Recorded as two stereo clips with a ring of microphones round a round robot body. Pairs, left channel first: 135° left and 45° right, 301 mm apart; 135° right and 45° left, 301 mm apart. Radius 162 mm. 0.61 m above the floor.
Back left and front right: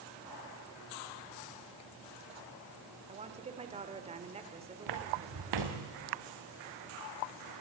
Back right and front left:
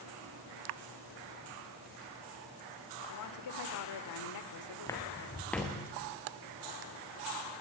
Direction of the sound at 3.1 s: 115° right.